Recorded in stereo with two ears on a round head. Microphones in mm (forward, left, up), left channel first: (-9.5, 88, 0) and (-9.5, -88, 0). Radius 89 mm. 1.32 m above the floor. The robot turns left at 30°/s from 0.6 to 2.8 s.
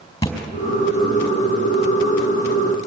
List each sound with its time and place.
0.2 s a thud: 15° left (ahead or behind), 4 m